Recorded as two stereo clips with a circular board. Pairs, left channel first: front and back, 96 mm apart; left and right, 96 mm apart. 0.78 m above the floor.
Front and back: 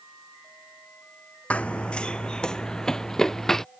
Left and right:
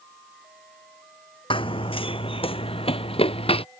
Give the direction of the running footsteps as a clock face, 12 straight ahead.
9 o'clock.